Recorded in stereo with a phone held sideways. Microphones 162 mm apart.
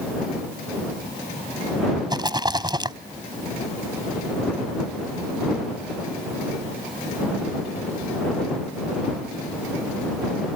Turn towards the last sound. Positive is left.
turn(degrees=-25)  # may be behind; listen again after turning